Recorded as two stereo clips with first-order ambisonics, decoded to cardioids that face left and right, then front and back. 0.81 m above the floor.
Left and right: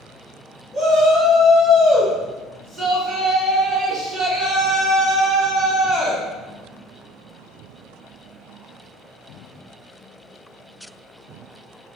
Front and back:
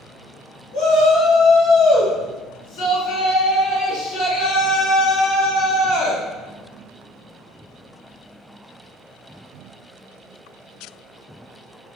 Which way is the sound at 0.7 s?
10° right.